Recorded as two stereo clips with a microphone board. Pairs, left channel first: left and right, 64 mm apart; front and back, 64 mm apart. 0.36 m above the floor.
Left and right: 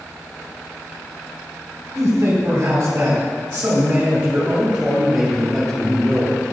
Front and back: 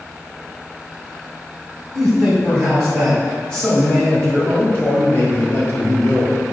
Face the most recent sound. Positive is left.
turn(degrees=30)